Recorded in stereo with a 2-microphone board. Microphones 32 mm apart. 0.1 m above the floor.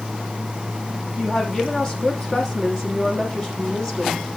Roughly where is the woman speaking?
Left.